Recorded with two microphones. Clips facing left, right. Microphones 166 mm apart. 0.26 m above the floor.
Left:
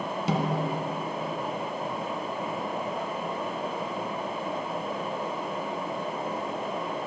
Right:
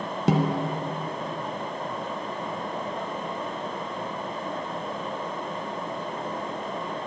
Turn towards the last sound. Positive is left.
turn(degrees=-60)  # may be behind; listen again after turning